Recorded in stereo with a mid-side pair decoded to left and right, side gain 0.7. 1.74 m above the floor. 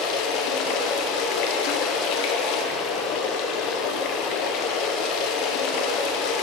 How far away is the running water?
About 0.9 m.